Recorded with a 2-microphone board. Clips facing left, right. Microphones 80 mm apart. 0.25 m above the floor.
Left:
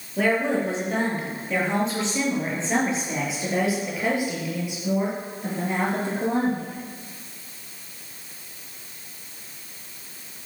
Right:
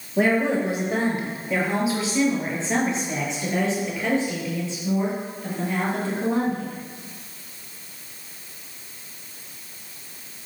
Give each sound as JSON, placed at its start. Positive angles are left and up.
{"t": 0.2, "sound": "a woman speaking", "side_deg": -20, "distance_m": 5.5}